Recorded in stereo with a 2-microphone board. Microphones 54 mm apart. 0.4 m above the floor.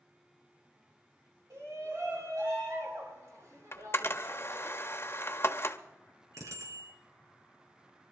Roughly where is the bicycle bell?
Right.